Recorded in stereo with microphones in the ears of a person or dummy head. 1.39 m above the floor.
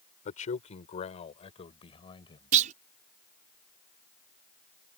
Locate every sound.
0.2 s a man speaking: 45° left (ahead or behind); by 2.5 s 30° left (ahead or behind)
2.5 s a clunk: 45° right (ahead or behind)